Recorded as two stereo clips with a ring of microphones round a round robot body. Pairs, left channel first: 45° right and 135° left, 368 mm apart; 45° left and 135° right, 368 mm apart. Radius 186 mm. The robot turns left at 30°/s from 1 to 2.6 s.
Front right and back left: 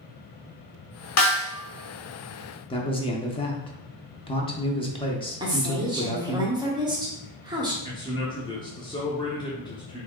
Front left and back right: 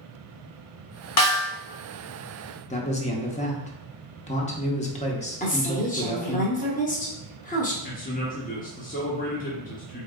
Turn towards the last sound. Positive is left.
turn(degrees=15)